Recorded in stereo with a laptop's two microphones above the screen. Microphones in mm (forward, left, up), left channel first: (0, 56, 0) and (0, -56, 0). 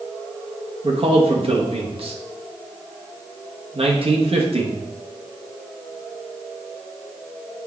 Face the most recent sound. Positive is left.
turn(degrees=-55)  # may be behind; listen again after turning